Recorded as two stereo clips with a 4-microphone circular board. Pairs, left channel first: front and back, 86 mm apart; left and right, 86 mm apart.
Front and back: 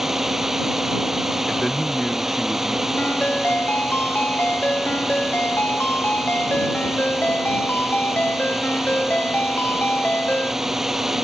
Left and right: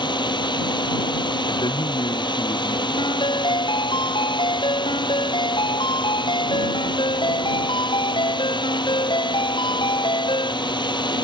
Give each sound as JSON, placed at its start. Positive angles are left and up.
{"t": 0.0, "sound": "a drone", "azimuth_deg": 95}
{"t": 1.5, "sound": "a man speaking", "azimuth_deg": 85}
{"t": 3.0, "sound": "a ringtone", "azimuth_deg": 70}